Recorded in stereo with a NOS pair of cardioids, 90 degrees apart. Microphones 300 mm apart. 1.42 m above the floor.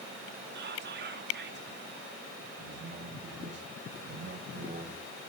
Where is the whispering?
35° right, 2 m.